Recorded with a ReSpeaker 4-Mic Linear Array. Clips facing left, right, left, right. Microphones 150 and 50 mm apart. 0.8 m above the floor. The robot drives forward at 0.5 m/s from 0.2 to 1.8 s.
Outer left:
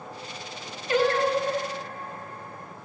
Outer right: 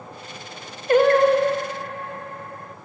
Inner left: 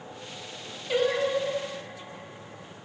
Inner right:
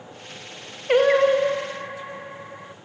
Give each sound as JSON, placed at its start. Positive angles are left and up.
{"t": 0.9, "sound": "singing", "side_deg": -55, "distance_m": 0.7}